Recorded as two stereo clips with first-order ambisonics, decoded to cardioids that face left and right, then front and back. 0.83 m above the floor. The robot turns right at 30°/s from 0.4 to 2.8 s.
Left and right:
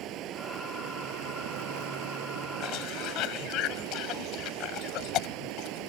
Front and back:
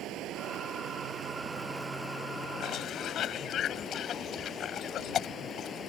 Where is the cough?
45° left; by 5.9 s 55° left.